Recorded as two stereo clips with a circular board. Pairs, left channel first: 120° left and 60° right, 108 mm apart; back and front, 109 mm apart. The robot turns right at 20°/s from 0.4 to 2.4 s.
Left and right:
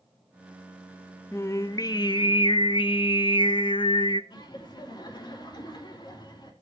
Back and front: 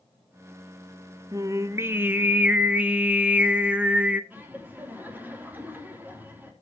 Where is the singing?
55° left, 0.8 m; by 4.2 s 80° left, 0.8 m.